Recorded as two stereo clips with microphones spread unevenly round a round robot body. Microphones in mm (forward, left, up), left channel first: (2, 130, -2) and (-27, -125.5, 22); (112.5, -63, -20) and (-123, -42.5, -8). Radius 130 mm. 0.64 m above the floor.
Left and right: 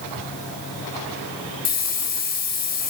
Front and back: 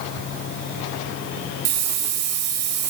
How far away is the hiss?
About 2.5 m.